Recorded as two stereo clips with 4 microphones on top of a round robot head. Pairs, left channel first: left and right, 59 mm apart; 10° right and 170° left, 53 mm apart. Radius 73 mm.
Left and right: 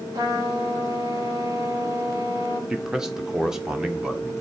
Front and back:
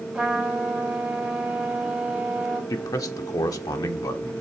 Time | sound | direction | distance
0.1 | a trumpet | 110° right | 2 m
2.7 | a man speaking | 10° right | 0.9 m